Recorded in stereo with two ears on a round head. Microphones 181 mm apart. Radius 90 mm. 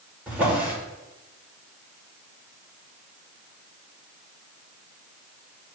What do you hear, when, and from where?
0.3 s a drawer: 5° right (ahead or behind), 2.5 m